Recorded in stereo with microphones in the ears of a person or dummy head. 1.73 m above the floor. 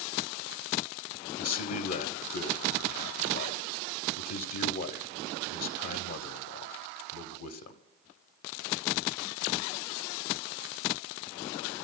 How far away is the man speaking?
About 0.9 m.